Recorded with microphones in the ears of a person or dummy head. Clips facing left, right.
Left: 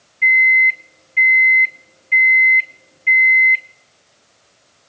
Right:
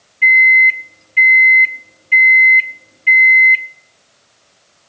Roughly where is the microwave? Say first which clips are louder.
Right 3 dB; centre.